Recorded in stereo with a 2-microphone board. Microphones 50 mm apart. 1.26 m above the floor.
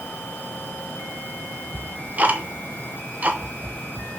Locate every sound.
1.7 s ticking: 30° right (ahead or behind), 1.0 m